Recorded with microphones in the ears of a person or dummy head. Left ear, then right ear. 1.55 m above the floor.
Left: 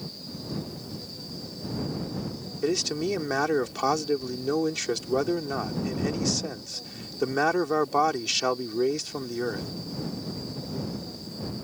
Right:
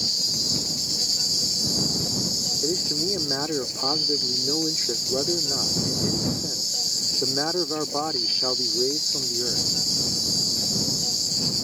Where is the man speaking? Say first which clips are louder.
Right 3 dB; 80° left.